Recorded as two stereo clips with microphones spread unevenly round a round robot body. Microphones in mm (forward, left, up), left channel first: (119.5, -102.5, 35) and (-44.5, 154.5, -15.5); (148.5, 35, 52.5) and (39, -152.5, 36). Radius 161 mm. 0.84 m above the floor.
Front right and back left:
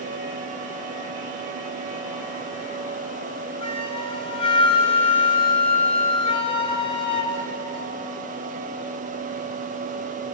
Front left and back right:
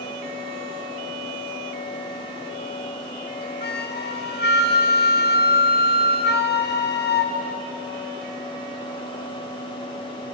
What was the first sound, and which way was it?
A flute, 15° left.